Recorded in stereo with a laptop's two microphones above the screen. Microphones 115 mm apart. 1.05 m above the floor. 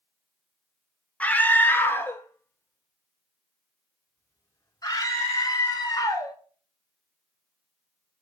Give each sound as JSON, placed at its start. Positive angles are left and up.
{"t": 1.2, "sound": "a scream", "side_deg": 10, "distance_m": 1.4}